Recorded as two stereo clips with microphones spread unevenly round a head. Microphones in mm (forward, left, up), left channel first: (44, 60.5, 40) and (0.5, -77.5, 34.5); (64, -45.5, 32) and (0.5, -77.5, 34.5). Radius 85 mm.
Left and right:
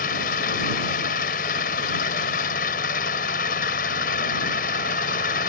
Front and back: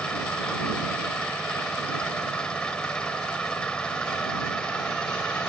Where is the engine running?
110° left.